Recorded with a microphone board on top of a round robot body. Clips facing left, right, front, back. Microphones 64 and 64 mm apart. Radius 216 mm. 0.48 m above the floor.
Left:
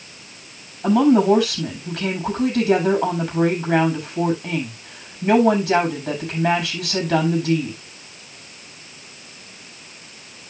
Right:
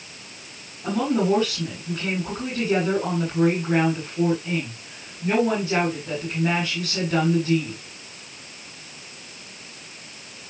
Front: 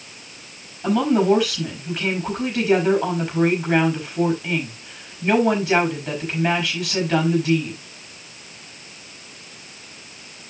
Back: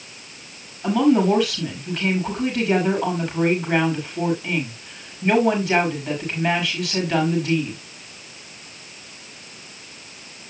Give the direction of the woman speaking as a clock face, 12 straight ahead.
9 o'clock.